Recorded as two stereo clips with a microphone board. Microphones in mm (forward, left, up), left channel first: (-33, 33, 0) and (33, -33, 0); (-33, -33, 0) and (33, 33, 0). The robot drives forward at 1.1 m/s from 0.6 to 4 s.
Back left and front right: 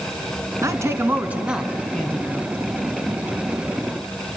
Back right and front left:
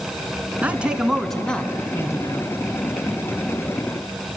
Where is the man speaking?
20° right, 1.6 m; by 2.5 s 165° right, 1.7 m.